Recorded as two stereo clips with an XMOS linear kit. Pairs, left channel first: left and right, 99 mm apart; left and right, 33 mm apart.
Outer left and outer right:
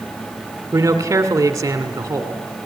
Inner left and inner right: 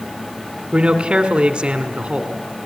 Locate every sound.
0.7 s a man speaking: 30° right (ahead or behind), 1.8 m